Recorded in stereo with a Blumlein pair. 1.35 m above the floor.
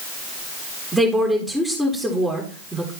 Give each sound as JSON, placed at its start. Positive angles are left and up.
{"t": 0.9, "sound": "a woman speaking", "azimuth_deg": 0, "distance_m": 2.5}